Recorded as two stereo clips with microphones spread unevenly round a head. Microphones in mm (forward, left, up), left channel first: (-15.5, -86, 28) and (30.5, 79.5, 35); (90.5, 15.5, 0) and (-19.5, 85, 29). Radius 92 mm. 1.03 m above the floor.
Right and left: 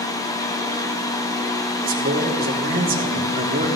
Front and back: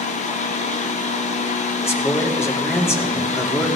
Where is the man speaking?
35° left, 3.5 m.